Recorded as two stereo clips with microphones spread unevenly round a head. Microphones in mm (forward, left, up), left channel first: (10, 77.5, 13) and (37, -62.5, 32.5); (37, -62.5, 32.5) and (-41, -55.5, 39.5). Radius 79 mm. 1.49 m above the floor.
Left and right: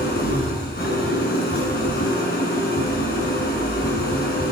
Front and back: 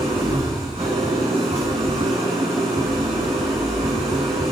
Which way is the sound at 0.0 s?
135° left.